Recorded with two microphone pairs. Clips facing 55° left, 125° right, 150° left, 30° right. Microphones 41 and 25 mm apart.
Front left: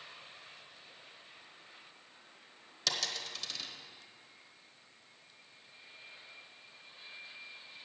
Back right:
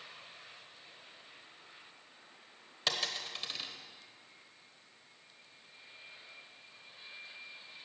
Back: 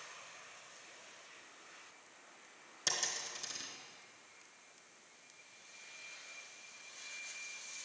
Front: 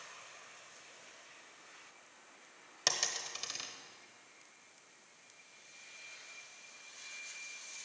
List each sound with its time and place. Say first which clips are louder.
2.9 s a dropped coin: back right 2 dB, front 3 dB; 65° right, 1.1 m